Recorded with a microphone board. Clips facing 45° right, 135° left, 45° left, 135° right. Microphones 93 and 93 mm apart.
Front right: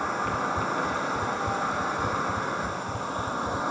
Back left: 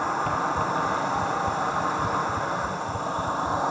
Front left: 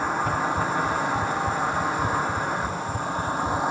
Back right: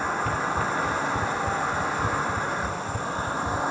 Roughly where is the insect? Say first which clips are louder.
Back left 3 dB, front left 2 dB; behind left.